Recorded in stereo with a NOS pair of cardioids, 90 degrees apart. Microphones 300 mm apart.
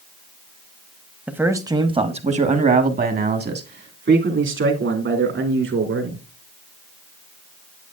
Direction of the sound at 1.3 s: 5° right.